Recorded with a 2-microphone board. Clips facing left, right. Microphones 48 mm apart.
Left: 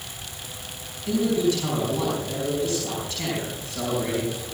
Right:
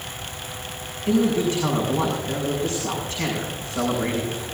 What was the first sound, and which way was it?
A man speaking, 35° right (ahead or behind).